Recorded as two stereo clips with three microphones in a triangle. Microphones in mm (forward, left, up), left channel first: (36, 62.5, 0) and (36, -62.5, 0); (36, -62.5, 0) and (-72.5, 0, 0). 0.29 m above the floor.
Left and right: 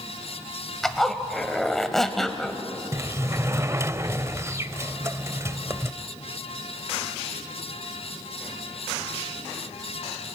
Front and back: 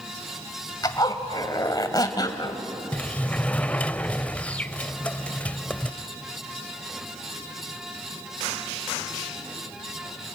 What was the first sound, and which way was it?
A zipper, 5° left.